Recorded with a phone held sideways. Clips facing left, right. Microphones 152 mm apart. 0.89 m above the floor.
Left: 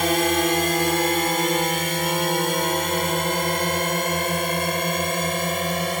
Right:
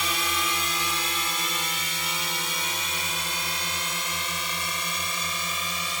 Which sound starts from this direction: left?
A drone, at 0.0 s.